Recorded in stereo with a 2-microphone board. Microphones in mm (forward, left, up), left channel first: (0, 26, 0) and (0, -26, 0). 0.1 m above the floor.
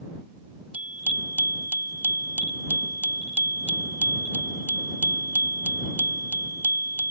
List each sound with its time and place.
0.7 s a bicycle bell: 35° right (ahead or behind)